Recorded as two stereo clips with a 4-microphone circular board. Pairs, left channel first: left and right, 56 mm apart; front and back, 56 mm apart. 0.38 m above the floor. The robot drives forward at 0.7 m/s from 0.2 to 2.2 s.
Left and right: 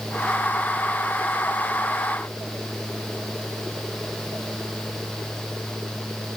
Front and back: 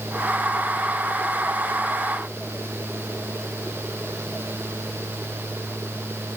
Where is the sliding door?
I don't hear a sliding door.